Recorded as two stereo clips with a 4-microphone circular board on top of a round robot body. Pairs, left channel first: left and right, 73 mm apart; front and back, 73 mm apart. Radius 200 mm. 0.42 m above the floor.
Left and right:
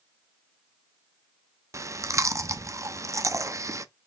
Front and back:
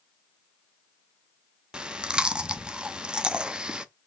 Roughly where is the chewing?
Right.